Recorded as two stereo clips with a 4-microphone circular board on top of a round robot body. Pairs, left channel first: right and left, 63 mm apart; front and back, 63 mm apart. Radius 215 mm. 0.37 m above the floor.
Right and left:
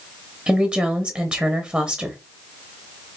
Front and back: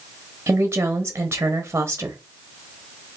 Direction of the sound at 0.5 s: 155° left.